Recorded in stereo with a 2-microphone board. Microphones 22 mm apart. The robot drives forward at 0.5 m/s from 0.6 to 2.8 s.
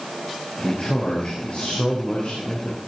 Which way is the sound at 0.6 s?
55° left (ahead or behind).